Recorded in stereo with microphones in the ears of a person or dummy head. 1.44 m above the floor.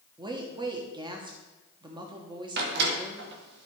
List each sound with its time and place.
0.2 s a woman speaking: 20° right (ahead or behind), 1.2 m
2.6 s a door slam: 60° right (ahead or behind), 1.4 m